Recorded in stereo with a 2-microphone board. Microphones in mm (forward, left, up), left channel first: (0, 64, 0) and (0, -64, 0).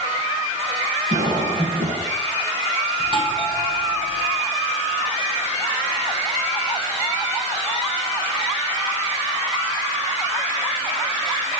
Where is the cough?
75° right (ahead or behind), 8 m.